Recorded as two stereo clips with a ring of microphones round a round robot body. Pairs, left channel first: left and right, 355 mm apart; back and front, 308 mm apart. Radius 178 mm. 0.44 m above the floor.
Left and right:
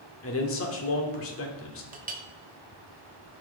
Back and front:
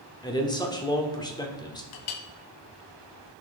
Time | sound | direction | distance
0.2 | a man speaking | 110° left | 1.3 m
1.9 | a clink | 160° right | 0.8 m